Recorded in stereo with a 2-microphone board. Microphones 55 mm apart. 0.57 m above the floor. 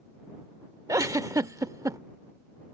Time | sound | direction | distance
0.9 | a giggle | 75° right (ahead or behind) | ?